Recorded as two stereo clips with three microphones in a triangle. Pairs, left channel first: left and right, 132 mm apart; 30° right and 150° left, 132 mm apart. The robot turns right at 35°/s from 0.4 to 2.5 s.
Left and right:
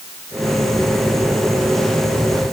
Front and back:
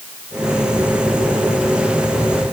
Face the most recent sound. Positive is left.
No sound to turn to.